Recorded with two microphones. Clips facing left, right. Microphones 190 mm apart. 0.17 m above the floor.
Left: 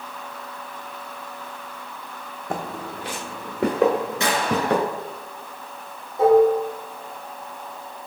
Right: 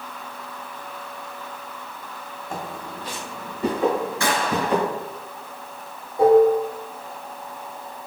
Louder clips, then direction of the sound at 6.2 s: Right 1 dB; 30° right (ahead or behind).